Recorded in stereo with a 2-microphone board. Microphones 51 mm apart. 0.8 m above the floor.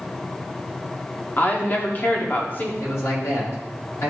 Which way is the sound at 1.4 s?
40° left (ahead or behind).